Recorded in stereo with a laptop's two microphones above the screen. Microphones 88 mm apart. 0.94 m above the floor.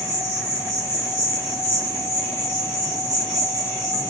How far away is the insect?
About 1.6 m.